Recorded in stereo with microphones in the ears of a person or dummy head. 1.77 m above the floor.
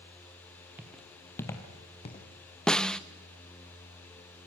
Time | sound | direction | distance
0.8 | footsteps | 5° right (ahead or behind) | 1.9 m
2.7 | a snare drum | 5° left (ahead or behind) | 0.5 m